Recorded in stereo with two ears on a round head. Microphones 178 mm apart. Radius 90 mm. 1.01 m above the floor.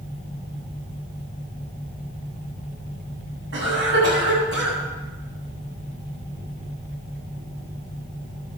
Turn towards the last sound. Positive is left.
turn(degrees=-65)  # may be behind; listen again after turning